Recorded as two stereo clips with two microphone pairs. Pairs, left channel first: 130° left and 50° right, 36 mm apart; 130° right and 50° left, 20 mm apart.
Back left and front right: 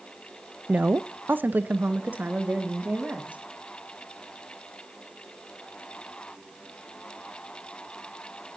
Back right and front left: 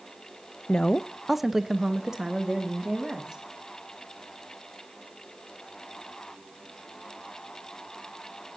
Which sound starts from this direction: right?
A woman speaking, at 0.7 s.